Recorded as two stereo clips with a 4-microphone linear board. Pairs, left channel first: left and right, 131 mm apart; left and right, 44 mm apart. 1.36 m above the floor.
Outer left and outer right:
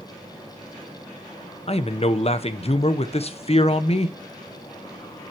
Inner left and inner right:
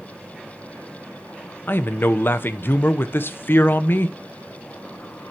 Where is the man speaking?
50° left (ahead or behind), 1.0 m.